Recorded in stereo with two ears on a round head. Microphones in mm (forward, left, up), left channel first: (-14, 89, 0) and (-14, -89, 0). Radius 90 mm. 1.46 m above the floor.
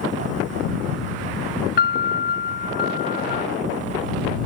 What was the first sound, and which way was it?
A piano, 50° left (ahead or behind).